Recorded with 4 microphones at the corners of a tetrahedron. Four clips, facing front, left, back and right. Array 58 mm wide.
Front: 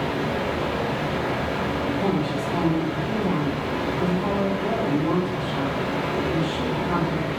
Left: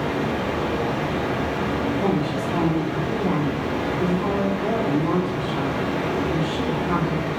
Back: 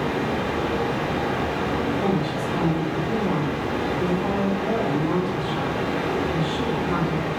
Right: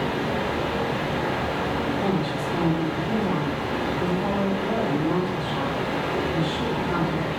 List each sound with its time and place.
0.0 s running water: 130° left, 1.0 m
1.9 s a woman speaking: 80° left, 1.5 m